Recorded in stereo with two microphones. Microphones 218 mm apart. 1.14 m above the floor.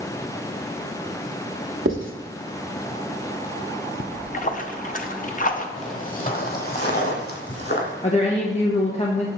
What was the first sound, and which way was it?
Writing, 65° right (ahead or behind).